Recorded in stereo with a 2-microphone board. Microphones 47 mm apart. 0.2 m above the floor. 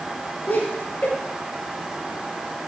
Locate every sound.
0.5 s laughter: 45° left (ahead or behind), 5 m